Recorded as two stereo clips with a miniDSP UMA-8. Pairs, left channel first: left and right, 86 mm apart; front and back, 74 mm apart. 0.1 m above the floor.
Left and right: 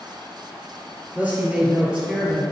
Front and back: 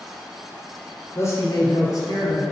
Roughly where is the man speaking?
Ahead right.